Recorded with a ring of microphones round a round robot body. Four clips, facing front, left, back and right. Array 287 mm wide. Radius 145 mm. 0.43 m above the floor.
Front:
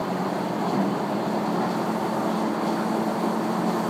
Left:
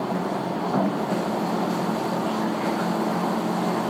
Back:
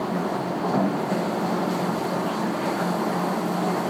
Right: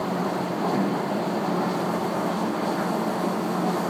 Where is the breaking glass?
No breaking glass in this recording.